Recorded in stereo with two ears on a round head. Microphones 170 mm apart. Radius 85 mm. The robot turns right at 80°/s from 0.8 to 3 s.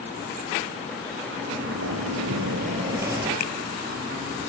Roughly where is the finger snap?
Left.